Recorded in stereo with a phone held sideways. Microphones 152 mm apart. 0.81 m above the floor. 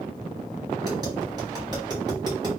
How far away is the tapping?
About 1.9 m.